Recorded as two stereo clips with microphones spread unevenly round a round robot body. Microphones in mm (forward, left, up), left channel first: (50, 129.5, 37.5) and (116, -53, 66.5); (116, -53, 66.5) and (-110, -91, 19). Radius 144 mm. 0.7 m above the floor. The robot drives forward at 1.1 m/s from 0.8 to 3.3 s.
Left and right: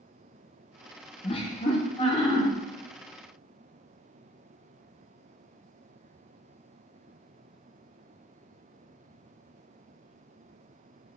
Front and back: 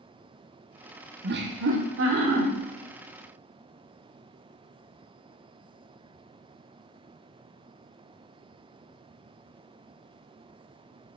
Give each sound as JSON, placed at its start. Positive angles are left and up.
{"t": 1.2, "sound": "laughter", "azimuth_deg": 165, "distance_m": 0.8}